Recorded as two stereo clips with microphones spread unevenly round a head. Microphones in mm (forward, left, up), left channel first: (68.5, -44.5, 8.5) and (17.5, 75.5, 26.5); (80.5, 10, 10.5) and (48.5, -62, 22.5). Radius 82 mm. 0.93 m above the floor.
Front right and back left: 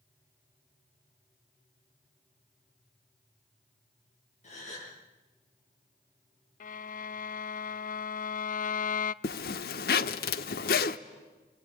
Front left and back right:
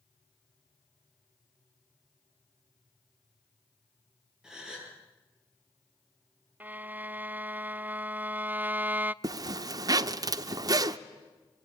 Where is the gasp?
35° right, 9 m.